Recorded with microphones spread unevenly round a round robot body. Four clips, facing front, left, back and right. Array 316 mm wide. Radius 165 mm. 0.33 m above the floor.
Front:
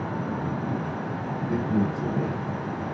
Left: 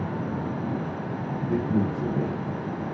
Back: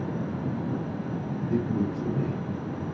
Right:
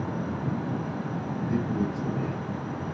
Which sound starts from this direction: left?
A man speaking, at 1.5 s.